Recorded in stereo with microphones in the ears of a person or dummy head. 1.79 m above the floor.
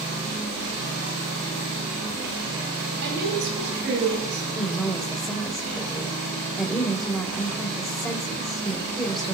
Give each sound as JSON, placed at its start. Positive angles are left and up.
{"t": 3.0, "sound": "a woman speaking", "side_deg": -65, "distance_m": 9.5}
{"t": 4.5, "sound": "a woman speaking", "side_deg": 10, "distance_m": 2.0}